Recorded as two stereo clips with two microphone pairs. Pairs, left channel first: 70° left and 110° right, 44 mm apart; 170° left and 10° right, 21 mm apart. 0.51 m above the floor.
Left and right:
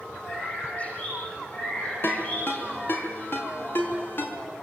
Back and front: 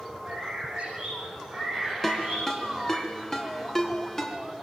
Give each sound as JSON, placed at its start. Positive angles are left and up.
{"t": 0.3, "sound": "a bird", "azimuth_deg": 10, "distance_m": 9.0}
{"t": 2.0, "sound": "a ringtone", "azimuth_deg": 110, "distance_m": 4.5}